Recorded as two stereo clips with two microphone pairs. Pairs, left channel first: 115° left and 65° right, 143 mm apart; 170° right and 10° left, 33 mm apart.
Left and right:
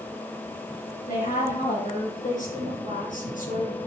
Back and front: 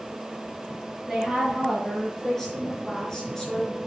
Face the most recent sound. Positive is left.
turn(degrees=125)